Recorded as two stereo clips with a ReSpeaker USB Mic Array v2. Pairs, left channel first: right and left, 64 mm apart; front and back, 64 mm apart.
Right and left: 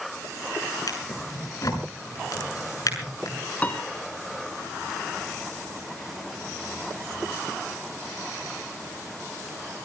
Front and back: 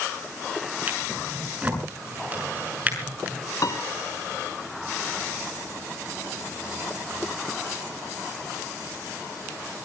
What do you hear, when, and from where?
0.9 s a drawer: 115° right, 6.5 m
3.6 s a piano: 25° right, 2.5 m